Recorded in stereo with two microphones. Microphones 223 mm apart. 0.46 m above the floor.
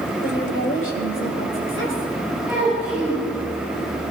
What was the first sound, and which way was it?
A woman speaking, 60° left (ahead or behind).